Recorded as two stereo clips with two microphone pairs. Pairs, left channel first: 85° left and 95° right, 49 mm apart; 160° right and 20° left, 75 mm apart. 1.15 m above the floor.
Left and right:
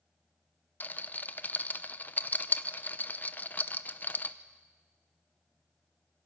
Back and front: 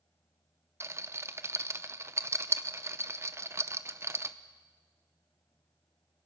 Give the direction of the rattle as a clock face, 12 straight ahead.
10 o'clock.